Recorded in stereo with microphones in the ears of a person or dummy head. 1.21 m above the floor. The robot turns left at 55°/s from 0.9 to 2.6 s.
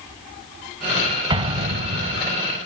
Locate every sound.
1.3 s an explosion: 45° right, 1.4 m; by 2.3 s 95° right, 1.4 m